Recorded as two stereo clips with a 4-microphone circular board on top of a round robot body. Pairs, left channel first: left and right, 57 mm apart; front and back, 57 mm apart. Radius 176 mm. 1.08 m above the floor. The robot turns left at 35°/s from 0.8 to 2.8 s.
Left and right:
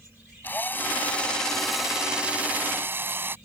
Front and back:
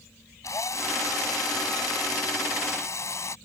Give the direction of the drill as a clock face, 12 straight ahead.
11 o'clock.